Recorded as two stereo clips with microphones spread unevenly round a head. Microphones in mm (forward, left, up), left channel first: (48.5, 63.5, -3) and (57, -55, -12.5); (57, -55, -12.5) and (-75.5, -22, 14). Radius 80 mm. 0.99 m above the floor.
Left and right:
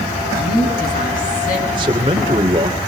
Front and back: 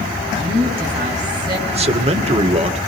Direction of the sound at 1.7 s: 150° right.